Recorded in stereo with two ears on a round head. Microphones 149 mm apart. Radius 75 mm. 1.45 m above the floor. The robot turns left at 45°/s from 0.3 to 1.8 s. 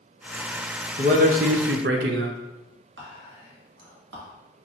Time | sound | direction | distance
1.0 | a man speaking | 40° right | 0.5 m
3.0 | whispering | 80° right | 1.8 m